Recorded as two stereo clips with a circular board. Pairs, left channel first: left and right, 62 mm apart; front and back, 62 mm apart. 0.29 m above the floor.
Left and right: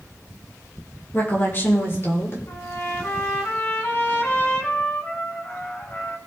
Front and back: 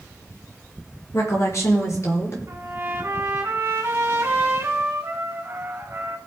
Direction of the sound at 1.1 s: 30° left.